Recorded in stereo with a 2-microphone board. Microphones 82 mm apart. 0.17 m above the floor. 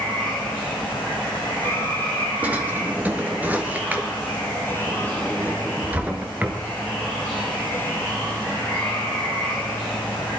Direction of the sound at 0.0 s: 20° left (ahead or behind).